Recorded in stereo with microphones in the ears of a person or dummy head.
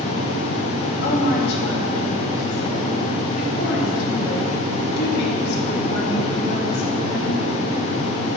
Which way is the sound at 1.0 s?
65° left (ahead or behind).